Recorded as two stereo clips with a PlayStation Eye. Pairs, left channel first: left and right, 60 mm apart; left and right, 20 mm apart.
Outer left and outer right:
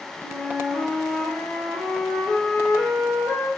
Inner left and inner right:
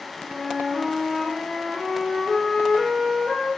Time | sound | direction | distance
0.2 | a flute | 40° left (ahead or behind) | 1.3 m